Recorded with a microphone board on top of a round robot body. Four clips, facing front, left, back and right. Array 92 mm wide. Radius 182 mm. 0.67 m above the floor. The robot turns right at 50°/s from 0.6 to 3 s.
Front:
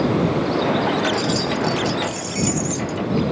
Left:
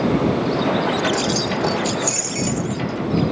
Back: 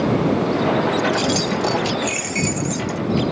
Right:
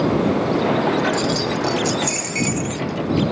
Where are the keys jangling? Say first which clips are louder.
Even, back 1 dB; 160° left; by 3.0 s 105° right.